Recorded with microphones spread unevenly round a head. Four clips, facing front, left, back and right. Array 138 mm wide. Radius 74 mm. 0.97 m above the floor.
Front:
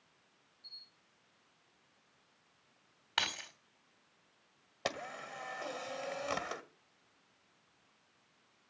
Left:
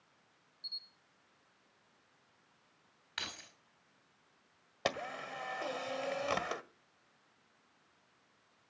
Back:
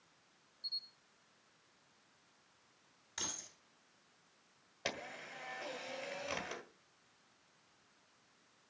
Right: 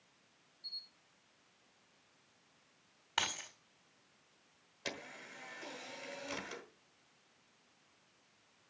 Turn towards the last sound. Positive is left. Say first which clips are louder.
# left 10 dB, front 4 dB
turn(degrees=70)